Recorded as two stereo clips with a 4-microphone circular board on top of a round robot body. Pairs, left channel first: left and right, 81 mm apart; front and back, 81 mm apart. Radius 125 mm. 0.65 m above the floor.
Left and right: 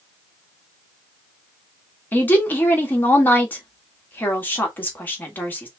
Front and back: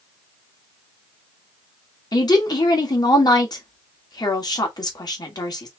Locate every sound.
2.1 s a woman speaking: 25° left, 1.7 m